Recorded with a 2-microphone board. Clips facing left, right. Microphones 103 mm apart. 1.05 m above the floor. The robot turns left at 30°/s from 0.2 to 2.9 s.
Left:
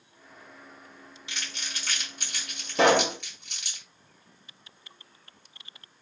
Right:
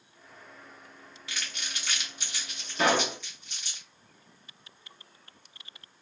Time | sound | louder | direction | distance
1.3 | crumpling | even | 25° left (ahead or behind) | 2 m
2.8 | a pop | left 5 dB | 75° left (ahead or behind) | 1.4 m